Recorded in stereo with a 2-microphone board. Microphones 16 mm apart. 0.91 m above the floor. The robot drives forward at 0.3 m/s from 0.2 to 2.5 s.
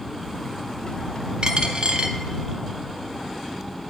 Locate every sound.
1.4 s a dropped coin: 60° right (ahead or behind), 0.6 m; by 2.2 s 75° right (ahead or behind), 0.5 m